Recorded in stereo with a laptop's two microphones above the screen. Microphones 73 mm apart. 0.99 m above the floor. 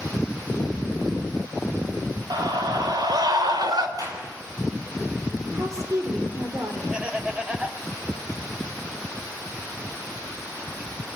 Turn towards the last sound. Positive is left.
turn(degrees=-15)  # may be behind; listen again after turning